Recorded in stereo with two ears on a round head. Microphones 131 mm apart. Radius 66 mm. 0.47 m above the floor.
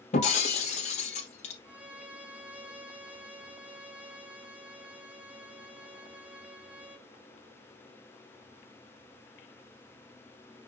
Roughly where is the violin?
Centre.